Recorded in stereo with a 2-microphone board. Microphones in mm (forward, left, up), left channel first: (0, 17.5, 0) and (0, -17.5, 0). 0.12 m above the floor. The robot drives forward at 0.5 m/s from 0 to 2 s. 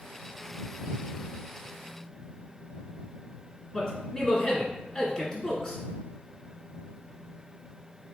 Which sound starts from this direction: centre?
A man speaking, at 3.7 s.